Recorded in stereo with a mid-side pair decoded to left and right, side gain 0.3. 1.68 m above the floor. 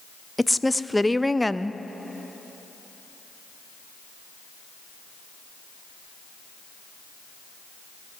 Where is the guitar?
I don't hear a guitar.